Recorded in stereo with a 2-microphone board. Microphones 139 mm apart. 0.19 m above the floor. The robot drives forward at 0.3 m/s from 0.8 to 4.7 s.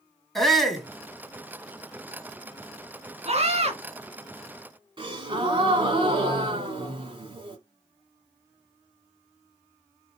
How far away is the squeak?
I don't hear a squeak.